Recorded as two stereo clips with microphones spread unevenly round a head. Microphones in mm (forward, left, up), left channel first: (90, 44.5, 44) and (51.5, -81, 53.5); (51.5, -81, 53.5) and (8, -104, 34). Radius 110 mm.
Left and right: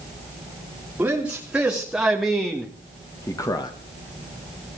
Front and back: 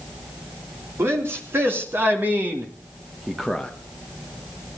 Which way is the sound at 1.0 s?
170° left.